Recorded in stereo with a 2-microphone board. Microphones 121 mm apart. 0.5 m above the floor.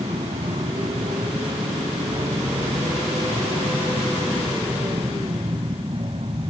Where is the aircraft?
70° right (ahead or behind); by 6.5 s 50° right (ahead or behind).